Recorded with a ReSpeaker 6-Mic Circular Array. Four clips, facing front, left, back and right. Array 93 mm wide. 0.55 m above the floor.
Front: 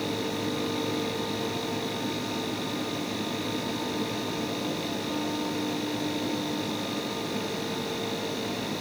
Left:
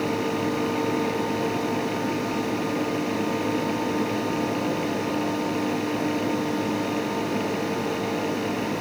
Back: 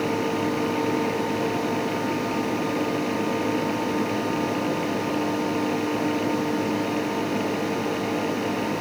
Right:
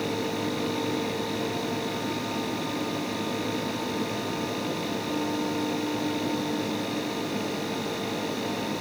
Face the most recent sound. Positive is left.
No sound to turn to.